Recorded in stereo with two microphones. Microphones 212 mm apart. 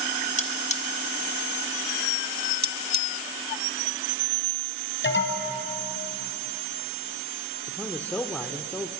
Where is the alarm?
65° left (ahead or behind), 3 m.